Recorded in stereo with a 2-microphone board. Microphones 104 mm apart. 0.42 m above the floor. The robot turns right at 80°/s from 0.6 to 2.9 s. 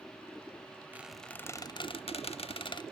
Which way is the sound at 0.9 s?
15° right (ahead or behind).